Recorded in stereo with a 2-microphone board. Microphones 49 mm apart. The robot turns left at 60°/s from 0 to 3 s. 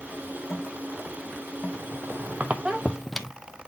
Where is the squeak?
75° right (ahead or behind), 0.6 m; by 3.3 s centre (ahead or behind), 0.6 m.